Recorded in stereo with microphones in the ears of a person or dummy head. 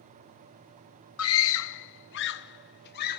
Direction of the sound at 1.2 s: 70° left (ahead or behind).